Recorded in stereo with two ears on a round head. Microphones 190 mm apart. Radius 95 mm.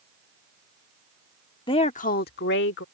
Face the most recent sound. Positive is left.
turn(degrees=60)  # may be behind; listen again after turning